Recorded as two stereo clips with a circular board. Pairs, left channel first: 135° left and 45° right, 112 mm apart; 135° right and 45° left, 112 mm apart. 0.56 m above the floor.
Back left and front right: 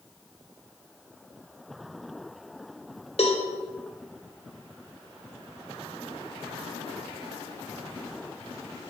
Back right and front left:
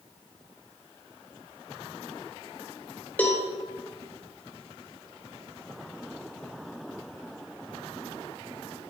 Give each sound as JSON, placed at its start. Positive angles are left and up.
{"t": 3.2, "sound": "a cowbell", "azimuth_deg": 150, "distance_m": 1.3}